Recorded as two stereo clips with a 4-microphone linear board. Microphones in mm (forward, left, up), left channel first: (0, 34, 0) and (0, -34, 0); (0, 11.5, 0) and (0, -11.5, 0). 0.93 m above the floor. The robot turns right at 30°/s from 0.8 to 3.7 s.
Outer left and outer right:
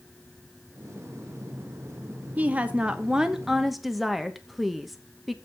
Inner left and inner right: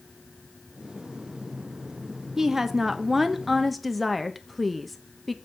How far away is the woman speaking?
About 1.0 m.